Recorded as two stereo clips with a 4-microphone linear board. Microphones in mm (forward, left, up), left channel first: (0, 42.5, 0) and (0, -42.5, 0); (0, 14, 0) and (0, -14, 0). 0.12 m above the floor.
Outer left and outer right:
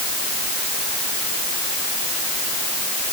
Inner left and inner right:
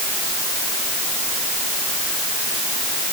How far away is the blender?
I don't hear a blender.